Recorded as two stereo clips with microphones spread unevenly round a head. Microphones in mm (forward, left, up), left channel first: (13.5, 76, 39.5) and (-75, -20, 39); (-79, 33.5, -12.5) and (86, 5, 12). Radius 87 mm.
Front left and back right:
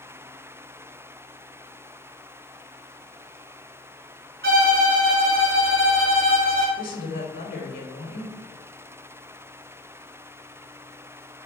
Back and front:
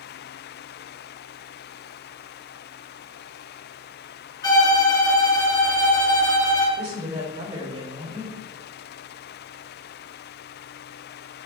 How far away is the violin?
About 2 m.